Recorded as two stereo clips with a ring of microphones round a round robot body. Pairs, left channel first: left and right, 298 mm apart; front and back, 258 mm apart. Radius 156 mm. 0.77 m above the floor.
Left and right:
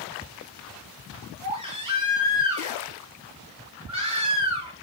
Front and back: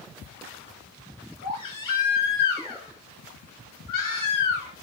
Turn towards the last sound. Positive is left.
turn(degrees=-15)